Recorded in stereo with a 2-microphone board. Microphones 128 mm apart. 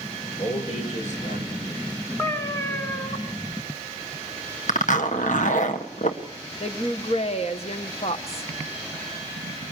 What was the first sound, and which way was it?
A man speaking, 65° left (ahead or behind).